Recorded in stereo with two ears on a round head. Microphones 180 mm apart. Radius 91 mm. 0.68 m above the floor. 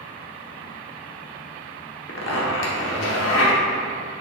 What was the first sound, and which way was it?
A zipper, 65° left (ahead or behind).